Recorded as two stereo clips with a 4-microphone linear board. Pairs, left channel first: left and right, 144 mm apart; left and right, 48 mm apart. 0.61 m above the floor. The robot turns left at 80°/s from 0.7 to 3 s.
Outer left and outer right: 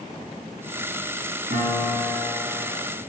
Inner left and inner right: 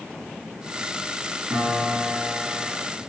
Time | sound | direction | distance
1.5 | a piano | 120° right | 5.5 m